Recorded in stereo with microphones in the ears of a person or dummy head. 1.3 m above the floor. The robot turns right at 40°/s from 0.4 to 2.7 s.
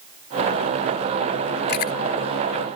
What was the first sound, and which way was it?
Chewing, 70° left (ahead or behind).